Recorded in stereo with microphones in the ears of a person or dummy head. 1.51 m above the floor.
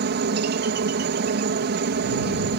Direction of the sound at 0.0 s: 50° right (ahead or behind).